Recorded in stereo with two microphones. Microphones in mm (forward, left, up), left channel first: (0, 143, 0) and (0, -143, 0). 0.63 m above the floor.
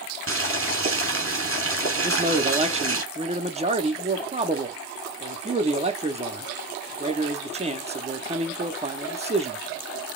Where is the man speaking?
20° right (ahead or behind), 0.7 m.